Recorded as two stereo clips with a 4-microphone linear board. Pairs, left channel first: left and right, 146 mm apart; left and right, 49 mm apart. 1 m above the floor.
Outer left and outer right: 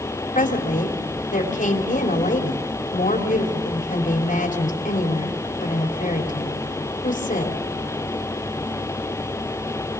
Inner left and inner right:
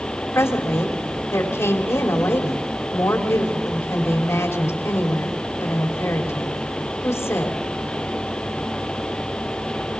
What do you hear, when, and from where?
0.3 s a woman speaking: 65° left (ahead or behind), 3 m